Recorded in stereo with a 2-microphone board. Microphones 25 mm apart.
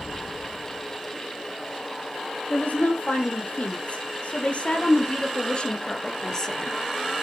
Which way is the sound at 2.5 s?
70° left (ahead or behind).